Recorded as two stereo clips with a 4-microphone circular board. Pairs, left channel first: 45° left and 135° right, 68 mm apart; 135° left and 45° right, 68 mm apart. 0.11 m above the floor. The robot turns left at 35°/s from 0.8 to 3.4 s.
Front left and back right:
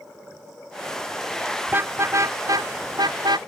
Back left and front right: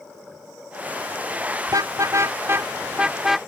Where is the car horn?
70° right; by 3.4 s 130° right.